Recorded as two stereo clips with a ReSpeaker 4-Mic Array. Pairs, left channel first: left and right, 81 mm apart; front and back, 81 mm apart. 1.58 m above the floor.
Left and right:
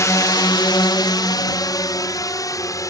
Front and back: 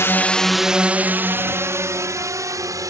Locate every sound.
0.0 s a drone: 50° left; by 2.9 s 135° left